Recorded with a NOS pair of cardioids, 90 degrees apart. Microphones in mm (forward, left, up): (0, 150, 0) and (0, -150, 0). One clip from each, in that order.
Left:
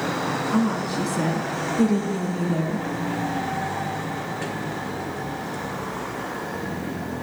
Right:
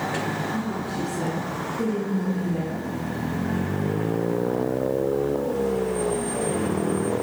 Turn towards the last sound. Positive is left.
turn(degrees=70)